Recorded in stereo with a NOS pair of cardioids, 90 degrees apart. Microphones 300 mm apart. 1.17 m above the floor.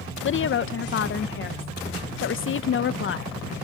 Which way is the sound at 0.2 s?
45° left.